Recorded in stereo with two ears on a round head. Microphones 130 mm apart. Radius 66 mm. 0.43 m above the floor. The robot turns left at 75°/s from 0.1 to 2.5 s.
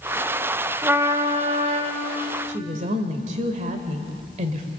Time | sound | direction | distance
0.8 | a trumpet | 15° right | 1.6 m
2.5 | a woman speaking | 55° right (ahead or behind) | 1.8 m